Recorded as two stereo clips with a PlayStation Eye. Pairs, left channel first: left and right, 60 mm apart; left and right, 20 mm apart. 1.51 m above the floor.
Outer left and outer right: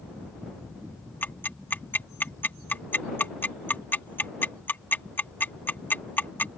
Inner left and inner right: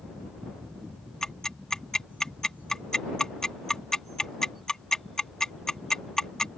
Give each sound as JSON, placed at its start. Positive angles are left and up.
{"t": 1.2, "sound": "ticking", "side_deg": 35}